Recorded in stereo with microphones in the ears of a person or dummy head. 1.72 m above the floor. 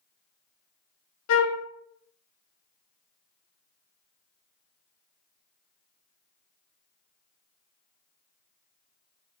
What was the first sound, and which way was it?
A flute, 85° left.